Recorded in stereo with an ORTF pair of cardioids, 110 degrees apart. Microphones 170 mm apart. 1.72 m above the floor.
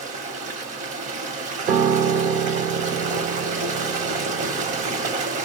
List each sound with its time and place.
0.0 s running water: 50° right, 1.0 m
1.7 s a piano: 60° right, 0.7 m